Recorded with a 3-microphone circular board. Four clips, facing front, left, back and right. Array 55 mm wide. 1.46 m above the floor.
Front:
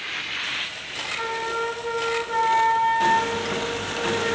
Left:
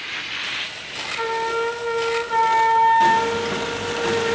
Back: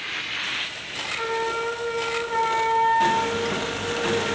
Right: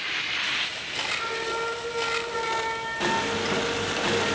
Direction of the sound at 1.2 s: 85° left.